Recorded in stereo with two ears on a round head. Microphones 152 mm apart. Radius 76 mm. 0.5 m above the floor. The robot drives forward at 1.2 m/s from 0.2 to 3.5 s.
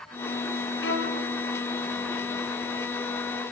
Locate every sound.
0.8 s a violin: 75° left (ahead or behind), 5.5 m; by 1.2 s 80° left, 5.5 m